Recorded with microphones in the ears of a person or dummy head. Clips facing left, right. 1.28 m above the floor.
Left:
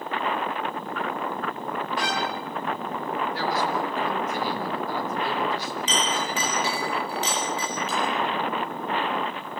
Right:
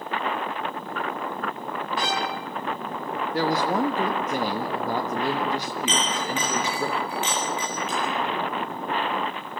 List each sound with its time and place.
2.0 s a violin: 30° right (ahead or behind), 2.5 m
3.3 s a woman speaking: 45° right (ahead or behind), 1.3 m
5.9 s a clink: 40° left (ahead or behind), 4.5 m